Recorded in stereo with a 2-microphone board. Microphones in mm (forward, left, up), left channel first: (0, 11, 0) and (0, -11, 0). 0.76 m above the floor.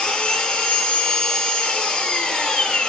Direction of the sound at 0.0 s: 45° left (ahead or behind).